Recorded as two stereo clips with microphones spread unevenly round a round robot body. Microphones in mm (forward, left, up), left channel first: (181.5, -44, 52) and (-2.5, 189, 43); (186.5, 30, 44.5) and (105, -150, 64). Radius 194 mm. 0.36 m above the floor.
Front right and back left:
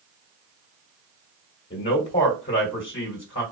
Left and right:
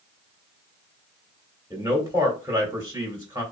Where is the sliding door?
No sliding door in this recording.